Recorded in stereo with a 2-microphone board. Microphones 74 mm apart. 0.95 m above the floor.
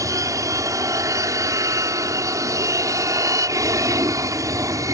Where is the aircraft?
55° right (ahead or behind).